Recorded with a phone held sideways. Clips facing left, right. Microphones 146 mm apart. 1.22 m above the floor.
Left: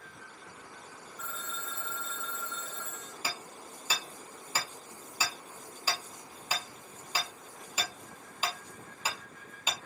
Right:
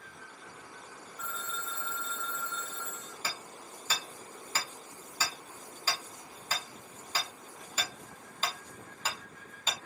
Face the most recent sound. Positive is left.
turn(degrees=10)  # may be behind; listen again after turning